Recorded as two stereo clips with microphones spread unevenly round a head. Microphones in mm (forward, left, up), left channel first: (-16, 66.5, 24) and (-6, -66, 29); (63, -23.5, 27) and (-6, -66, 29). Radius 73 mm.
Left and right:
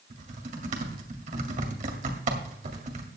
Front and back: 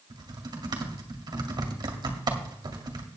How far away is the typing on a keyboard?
About 2 m.